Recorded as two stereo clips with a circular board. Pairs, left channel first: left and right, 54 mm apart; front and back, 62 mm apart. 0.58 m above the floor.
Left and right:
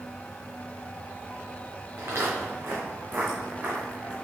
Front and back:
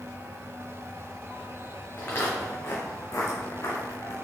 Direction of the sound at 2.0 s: 55° right.